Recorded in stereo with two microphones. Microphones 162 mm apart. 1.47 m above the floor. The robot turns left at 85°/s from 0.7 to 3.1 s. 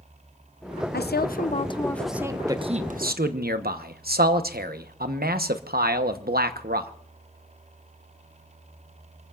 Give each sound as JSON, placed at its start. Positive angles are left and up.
{"t": 0.9, "sound": "a woman speaking", "azimuth_deg": 95, "distance_m": 0.8}
{"t": 2.5, "sound": "a man speaking", "azimuth_deg": -20, "distance_m": 1.0}